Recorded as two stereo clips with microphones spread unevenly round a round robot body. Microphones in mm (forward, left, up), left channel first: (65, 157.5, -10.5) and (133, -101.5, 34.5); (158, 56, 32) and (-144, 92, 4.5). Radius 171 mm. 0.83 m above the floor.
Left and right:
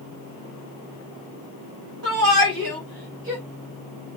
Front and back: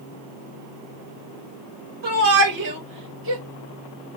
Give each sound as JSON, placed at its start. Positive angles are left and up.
{"t": 2.0, "sound": "a shout", "azimuth_deg": -125, "distance_m": 4.5}